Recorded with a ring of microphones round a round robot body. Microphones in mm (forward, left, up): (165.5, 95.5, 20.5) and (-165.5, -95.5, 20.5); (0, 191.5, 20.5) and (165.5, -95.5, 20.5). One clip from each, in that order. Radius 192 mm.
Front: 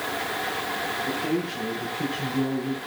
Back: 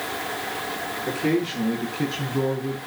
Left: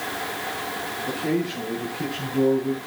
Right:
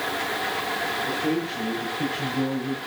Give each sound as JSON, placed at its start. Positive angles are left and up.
{"t": 1.1, "sound": "a man speaking", "azimuth_deg": -145, "distance_m": 7.0}